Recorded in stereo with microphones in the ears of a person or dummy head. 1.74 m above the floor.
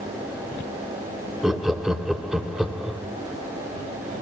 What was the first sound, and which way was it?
Laughter, 5° right (ahead or behind).